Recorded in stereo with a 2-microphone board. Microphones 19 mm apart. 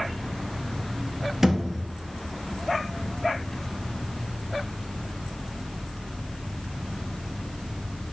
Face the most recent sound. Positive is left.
turn(degrees=-20)  # may be behind; listen again after turning